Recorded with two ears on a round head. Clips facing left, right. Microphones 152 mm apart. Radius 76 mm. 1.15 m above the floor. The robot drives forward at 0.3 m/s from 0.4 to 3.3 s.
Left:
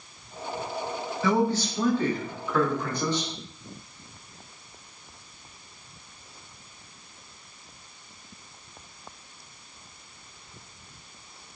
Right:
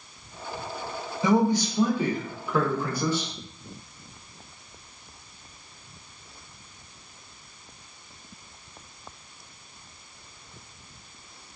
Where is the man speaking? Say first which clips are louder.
Right 3 dB; 15° right (ahead or behind), 0.5 m; by 3.3 s 5° right (ahead or behind), 1.1 m.